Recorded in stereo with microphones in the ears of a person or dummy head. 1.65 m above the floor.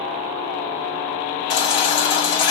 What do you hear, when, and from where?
1.5 s a baby crying: 30° left (ahead or behind), 2 m